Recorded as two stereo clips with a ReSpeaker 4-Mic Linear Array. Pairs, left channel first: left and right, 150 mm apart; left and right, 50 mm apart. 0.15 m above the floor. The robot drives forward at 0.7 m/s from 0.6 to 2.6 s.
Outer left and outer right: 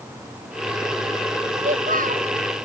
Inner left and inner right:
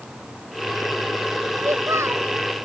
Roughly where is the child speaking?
Right.